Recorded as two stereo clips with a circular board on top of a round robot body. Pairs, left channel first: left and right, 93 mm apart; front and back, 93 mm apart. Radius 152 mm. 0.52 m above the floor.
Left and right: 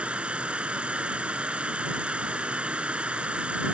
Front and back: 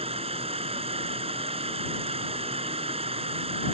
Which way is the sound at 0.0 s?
170° right.